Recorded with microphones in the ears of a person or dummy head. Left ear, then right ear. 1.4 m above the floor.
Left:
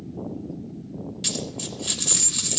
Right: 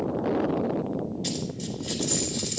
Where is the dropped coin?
50° left (ahead or behind), 1.6 m.